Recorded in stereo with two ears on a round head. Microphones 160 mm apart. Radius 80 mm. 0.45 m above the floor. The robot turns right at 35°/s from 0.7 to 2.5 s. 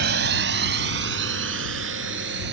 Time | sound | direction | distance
0.0 | a drone | 60° right (ahead or behind) | ?